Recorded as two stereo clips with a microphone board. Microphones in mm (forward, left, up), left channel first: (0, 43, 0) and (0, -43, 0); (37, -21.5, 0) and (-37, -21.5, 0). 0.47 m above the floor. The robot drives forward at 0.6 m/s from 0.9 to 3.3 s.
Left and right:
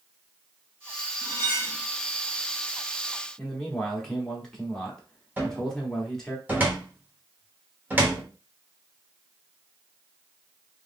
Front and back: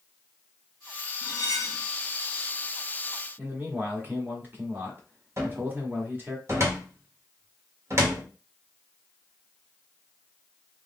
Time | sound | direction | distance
1.2 | cutlery clinking | 30° left | 1.0 m
3.4 | a man speaking | 165° left | 1.0 m
5.4 | a cupboard door | 150° right | 1.2 m